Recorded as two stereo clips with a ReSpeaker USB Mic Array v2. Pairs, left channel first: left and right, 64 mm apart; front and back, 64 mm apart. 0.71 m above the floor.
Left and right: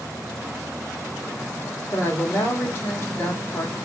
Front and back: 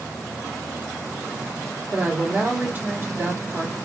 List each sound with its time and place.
1.9 s a woman speaking: 125° left, 1.8 m